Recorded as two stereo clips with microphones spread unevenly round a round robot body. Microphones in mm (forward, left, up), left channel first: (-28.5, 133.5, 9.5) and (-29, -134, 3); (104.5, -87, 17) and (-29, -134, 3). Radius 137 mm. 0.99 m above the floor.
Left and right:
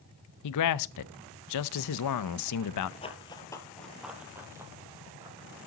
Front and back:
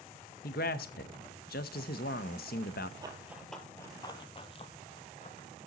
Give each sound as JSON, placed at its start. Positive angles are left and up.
{"t": 0.4, "sound": "a man speaking", "azimuth_deg": 60, "distance_m": 0.5}
{"t": 3.0, "sound": "running footsteps", "azimuth_deg": 140, "distance_m": 1.1}